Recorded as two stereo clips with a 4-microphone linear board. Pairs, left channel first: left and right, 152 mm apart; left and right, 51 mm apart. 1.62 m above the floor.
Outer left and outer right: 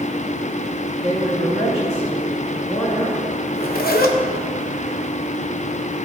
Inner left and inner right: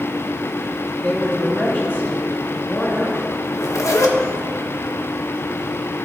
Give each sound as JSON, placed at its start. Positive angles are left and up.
{"t": 1.0, "sound": "a woman speaking", "side_deg": 50, "distance_m": 3.0}
{"t": 3.5, "sound": "a zipper", "side_deg": 85, "distance_m": 1.0}